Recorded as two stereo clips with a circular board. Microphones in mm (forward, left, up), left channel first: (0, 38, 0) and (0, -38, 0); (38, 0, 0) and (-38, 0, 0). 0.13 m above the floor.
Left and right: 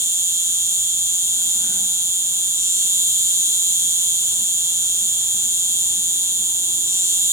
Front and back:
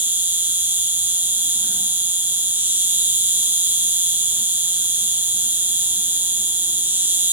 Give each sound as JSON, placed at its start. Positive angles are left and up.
{"t": 0.0, "sound": "an insect", "azimuth_deg": -125, "distance_m": 0.8}